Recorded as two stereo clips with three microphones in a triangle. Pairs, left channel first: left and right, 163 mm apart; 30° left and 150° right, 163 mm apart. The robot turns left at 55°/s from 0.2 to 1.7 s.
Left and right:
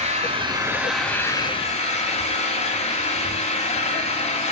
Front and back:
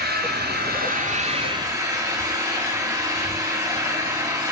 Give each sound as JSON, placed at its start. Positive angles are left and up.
{"t": 0.0, "sound": "an engine running", "azimuth_deg": -135, "distance_m": 1.8}